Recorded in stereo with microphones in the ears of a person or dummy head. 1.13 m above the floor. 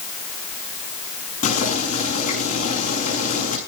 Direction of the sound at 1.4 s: 40° left (ahead or behind).